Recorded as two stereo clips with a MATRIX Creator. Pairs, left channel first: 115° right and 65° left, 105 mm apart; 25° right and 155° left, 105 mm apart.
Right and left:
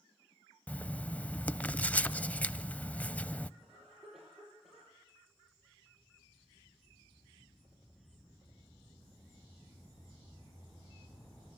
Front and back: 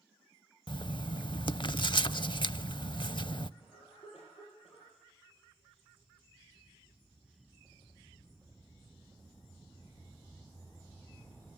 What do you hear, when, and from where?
0.7 s writing: 40° right, 0.6 m
3.6 s a cough: 20° right, 9 m